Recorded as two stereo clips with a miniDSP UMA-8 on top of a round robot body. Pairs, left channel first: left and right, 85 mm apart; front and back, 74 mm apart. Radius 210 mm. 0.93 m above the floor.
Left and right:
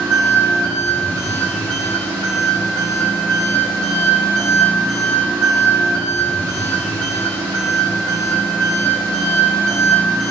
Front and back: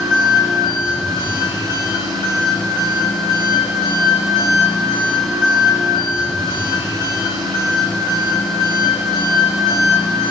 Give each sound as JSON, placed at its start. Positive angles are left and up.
{"t": 0.0, "sound": "an engine running", "azimuth_deg": 10, "distance_m": 1.3}